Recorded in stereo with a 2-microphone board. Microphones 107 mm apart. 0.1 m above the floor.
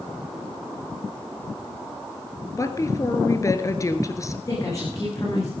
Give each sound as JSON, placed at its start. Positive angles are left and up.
{"t": 2.6, "sound": "a woman speaking", "side_deg": 30, "distance_m": 1.5}
{"t": 4.5, "sound": "a woman speaking", "side_deg": 30, "distance_m": 8.0}